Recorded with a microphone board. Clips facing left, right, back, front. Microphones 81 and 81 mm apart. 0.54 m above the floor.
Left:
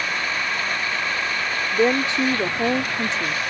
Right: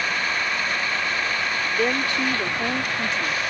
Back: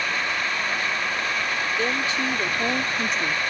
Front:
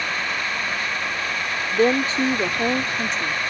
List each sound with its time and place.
1.7 s a woman speaking: 30° left; by 3.4 s 130° left